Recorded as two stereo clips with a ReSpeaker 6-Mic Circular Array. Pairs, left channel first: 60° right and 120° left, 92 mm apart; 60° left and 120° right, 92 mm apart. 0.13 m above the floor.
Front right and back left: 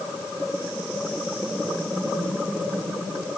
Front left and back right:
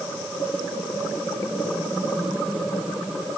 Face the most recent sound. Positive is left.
No sound to turn to.